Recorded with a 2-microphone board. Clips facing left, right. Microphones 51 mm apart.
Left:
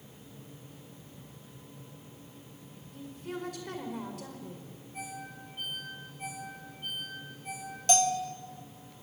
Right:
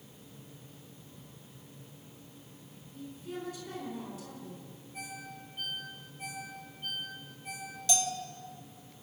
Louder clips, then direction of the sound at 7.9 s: Left 7 dB; 40° left (ahead or behind).